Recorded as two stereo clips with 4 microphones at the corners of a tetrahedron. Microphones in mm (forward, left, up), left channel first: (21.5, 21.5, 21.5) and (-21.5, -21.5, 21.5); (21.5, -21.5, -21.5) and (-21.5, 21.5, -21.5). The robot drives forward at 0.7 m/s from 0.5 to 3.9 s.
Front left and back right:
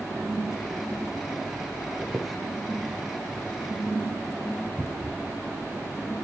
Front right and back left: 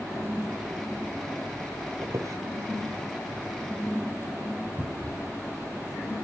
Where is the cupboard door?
130° left, 1.8 m.